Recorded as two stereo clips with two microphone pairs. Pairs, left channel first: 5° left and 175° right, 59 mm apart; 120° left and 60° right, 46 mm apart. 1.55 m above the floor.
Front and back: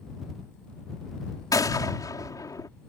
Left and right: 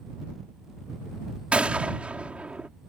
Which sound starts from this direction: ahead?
A gunshot, at 1.5 s.